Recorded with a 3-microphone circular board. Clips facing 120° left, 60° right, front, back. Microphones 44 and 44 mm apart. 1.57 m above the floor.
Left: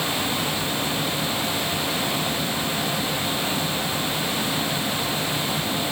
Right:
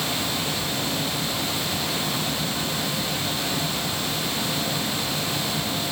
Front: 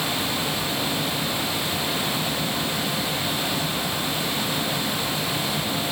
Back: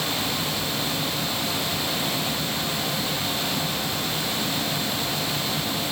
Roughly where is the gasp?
No gasp in this recording.